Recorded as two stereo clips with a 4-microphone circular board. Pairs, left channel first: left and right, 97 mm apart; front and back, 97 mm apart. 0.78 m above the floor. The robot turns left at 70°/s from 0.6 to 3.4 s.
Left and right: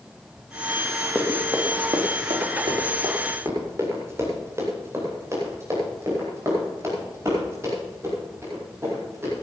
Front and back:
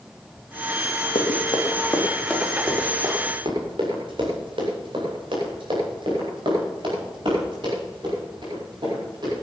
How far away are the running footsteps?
About 3.5 m.